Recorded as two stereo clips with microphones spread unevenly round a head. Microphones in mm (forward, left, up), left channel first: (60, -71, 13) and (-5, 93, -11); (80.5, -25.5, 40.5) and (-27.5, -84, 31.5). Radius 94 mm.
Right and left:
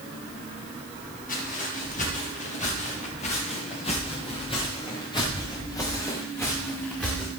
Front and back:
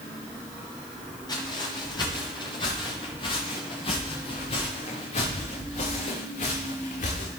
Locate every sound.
1.3 s footsteps: 25° right, 10 m; by 7.3 s 15° left, 6 m